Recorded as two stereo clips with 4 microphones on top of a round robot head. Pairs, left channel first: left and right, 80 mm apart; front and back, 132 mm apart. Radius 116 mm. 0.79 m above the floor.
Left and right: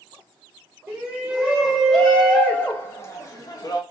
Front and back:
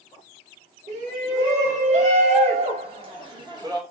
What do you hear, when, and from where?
0.9 s a shout: 160° right, 1.6 m; by 3.8 s 120° left, 1.5 m